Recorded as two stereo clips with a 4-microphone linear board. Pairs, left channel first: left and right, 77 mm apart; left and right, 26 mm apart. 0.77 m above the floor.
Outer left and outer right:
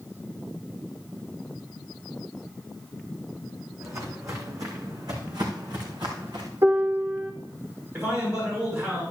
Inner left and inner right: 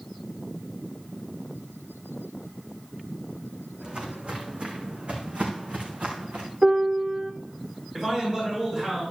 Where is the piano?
50° right (ahead or behind), 1.6 m.